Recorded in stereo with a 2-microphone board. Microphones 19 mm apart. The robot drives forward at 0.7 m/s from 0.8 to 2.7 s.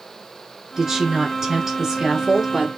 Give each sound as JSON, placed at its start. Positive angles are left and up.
{"t": 0.8, "sound": "a woman speaking", "side_deg": -25, "distance_m": 1.8}